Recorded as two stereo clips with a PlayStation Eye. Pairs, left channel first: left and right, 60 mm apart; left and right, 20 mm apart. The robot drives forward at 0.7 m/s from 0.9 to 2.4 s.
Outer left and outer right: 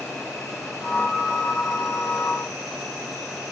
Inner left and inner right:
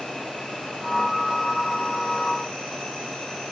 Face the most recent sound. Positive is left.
turn(degrees=75)  # may be behind; listen again after turning